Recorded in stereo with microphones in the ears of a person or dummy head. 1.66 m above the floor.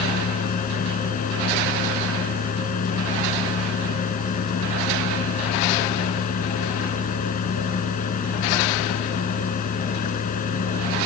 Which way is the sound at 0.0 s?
40° left (ahead or behind).